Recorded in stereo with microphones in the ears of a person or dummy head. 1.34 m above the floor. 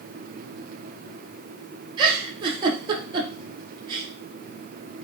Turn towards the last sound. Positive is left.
turn(degrees=-30)  # may be behind; listen again after turning